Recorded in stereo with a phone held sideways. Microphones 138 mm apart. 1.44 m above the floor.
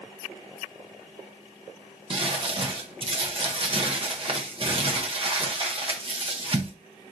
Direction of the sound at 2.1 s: 40° right (ahead or behind).